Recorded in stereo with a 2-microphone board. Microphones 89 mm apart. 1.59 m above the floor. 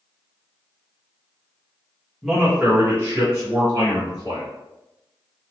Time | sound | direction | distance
2.2 | a man speaking | 5° right (ahead or behind) | 0.9 m